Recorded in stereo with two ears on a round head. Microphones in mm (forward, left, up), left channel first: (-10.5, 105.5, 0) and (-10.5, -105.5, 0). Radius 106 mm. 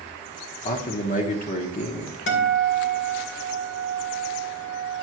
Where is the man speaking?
35° left (ahead or behind), 1.1 m.